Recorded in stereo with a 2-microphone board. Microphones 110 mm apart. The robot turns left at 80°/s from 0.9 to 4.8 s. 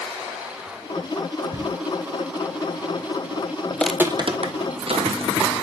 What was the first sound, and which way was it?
A cupboard door, 25° right (ahead or behind).